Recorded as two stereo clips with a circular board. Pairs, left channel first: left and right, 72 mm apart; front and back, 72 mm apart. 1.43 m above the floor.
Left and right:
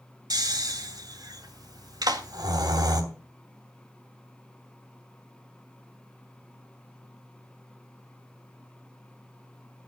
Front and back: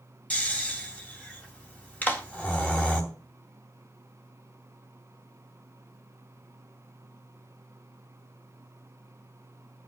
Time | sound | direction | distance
0.3 | snoring | 70° right | 2.5 m
2.0 | a clap | 65° right | 1.9 m